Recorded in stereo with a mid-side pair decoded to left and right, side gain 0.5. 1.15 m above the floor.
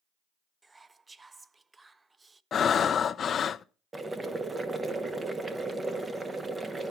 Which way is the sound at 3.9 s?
25° right.